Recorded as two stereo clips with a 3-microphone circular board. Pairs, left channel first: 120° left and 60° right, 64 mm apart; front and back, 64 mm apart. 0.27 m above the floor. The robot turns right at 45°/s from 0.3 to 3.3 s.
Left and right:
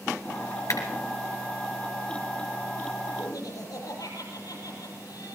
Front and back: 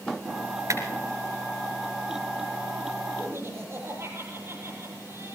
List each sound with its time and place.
0.7 s a clap: 150° left, 3.5 m; by 0.8 s 155° left, 3.5 m
3.2 s laughter: 125° left, 7.5 m; by 5.3 s 130° left, 7.5 m